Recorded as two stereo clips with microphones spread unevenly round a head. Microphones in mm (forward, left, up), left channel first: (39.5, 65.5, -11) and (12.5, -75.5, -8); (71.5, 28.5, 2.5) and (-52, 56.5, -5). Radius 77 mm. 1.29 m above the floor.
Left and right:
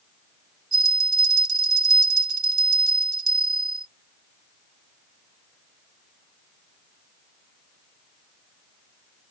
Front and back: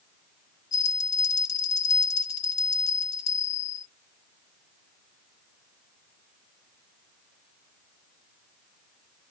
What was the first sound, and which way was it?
A bell, 55° right.